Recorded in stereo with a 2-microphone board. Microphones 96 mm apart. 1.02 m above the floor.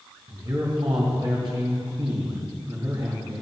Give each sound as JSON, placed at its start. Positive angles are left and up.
{"t": 0.3, "sound": "a man speaking", "side_deg": -50, "distance_m": 1.9}